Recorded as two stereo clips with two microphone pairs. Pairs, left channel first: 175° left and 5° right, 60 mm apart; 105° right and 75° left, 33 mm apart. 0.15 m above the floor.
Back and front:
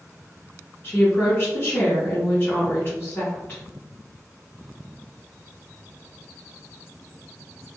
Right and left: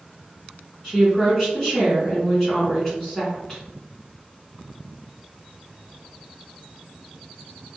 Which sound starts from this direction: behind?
A woman speaking, at 0.8 s.